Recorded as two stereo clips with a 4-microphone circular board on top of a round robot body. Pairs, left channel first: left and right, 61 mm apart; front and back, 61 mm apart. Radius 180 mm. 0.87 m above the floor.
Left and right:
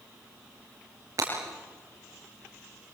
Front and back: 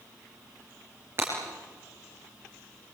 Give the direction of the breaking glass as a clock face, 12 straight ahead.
4 o'clock.